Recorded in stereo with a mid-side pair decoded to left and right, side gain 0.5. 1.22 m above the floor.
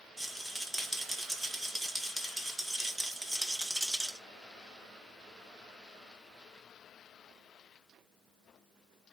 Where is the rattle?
10° right, 1.5 m.